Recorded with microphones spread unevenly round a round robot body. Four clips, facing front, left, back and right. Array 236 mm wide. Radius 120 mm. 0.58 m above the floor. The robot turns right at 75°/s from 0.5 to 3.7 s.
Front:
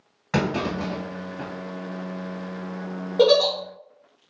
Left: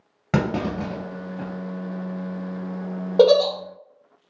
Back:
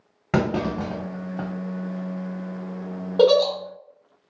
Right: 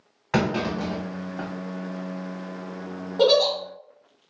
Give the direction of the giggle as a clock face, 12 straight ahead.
9 o'clock.